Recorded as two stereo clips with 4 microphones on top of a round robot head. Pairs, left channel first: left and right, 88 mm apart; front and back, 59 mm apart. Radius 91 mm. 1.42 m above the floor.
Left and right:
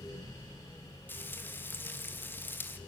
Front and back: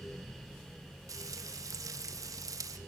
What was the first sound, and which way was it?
Frying, 160° left.